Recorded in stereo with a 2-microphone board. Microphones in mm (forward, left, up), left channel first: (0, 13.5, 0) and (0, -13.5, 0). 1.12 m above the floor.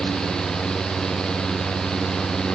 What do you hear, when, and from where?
Only background noise.